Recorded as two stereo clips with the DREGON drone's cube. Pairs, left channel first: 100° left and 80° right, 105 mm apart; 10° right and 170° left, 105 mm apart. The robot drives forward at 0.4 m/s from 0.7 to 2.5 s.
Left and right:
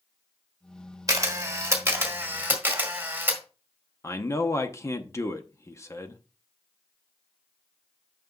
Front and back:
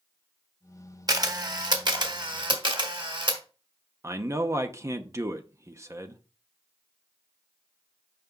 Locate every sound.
1.1 s a camera shutter: 135° right, 1.1 m; by 3.4 s 150° right, 1.6 m
4.0 s a man speaking: 130° left, 0.8 m